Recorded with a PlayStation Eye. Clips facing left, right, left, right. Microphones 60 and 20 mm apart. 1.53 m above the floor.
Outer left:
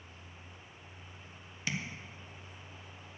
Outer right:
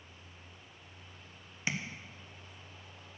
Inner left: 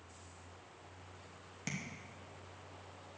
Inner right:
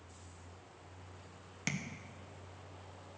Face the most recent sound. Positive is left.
turn(degrees=-25)  # may be behind; listen again after turning